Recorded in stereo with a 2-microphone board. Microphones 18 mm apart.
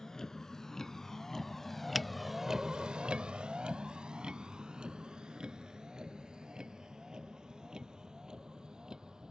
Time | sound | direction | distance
0.0 | a vehicle | 25° left (ahead or behind) | ?
1.9 | a finger snap | 5° right (ahead or behind) | ?